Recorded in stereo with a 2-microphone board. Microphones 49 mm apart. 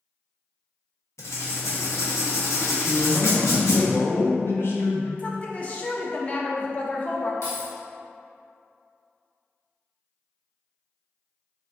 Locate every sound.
1.2 s writing: 75° left (ahead or behind), 0.9 m
2.8 s a man speaking: 50° left (ahead or behind), 0.8 m
5.2 s a woman speaking: 30° left (ahead or behind), 0.6 m
7.4 s keys jangling: 75° left (ahead or behind), 1.7 m